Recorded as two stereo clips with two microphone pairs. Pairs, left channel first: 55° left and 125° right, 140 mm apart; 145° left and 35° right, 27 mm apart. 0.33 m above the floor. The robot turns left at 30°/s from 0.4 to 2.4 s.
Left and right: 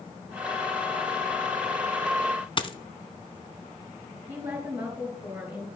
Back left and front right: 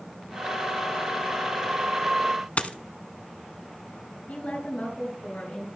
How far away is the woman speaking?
About 4.5 m.